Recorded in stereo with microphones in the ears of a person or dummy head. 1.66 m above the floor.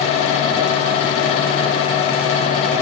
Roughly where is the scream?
I don't hear a scream.